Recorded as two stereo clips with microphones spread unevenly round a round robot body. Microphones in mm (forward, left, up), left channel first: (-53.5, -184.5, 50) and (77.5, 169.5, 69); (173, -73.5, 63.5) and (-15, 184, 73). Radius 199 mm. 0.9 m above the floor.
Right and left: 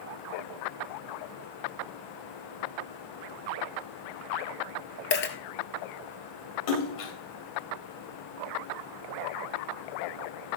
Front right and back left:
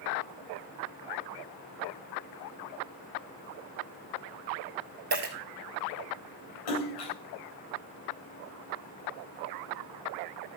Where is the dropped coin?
170° right, 1.5 m.